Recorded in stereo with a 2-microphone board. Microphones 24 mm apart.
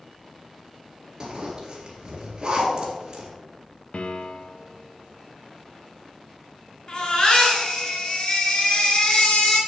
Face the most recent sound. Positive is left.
turn(degrees=40)  # may be behind; listen again after turning